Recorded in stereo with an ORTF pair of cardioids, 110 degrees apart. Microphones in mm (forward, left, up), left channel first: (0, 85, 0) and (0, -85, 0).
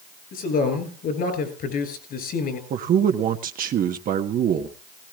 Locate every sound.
0.3 s a man speaking: 60° left, 5 m
2.7 s a man speaking: 55° right, 1.2 m